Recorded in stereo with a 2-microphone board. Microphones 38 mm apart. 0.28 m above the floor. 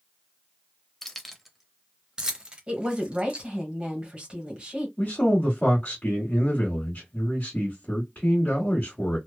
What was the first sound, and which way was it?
Keys jangling, 10° left (ahead or behind).